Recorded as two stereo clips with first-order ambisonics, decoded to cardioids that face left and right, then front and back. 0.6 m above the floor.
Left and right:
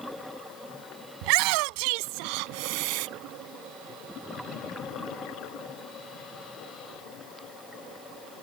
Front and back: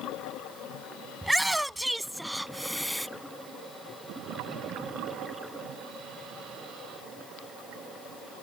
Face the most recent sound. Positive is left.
turn(degrees=-90)